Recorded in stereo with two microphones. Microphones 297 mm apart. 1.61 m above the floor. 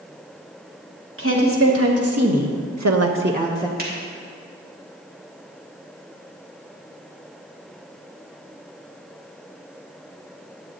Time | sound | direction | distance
1.2 | a woman speaking | 50° right (ahead or behind) | 1.9 m
3.8 | a finger snap | 35° right (ahead or behind) | 2 m